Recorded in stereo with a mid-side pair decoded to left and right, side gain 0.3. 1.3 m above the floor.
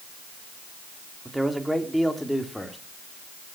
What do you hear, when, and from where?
1.2 s a man speaking: 20° right, 3 m; by 2.8 s 15° left, 3 m